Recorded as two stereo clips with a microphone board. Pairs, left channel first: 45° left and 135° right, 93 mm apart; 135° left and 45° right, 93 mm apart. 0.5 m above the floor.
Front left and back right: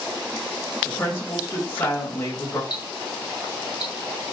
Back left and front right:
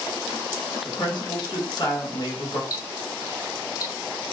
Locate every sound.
0.8 s a woman speaking: 105° left, 3 m
2.7 s ticking: 90° left, 3 m